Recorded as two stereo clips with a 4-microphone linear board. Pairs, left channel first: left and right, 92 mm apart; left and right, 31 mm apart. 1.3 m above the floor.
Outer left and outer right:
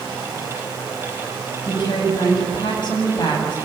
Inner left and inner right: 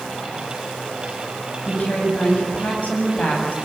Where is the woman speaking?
55° left (ahead or behind), 7.5 m.